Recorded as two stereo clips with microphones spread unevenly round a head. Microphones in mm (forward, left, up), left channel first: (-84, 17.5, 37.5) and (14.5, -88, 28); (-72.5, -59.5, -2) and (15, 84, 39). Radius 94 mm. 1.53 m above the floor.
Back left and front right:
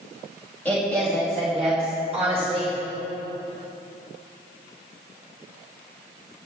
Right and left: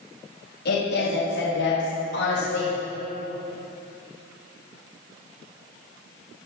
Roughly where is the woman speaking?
Behind right.